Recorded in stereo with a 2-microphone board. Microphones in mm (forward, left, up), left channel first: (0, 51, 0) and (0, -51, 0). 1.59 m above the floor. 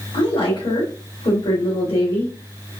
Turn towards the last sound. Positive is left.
turn(degrees=80)